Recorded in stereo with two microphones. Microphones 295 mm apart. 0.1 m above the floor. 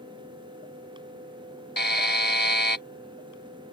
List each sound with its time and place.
1.8 s a buzzer: 35° left (ahead or behind)